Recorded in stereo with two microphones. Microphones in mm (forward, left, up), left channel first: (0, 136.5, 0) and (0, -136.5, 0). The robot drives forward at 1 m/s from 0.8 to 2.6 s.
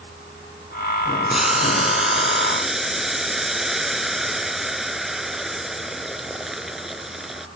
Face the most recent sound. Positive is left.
turn(degrees=0)  # may be behind; listen again after turning